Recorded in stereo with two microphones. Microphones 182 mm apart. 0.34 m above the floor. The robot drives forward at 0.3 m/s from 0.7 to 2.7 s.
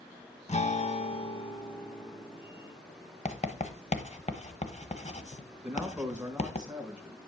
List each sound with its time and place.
0.5 s a guitar: 40° left (ahead or behind), 0.6 m; by 2.7 s 20° left (ahead or behind), 1.1 m
3.2 s writing: 40° left (ahead or behind), 1.0 m
5.6 s a man speaking: 5° right (ahead or behind), 3.5 m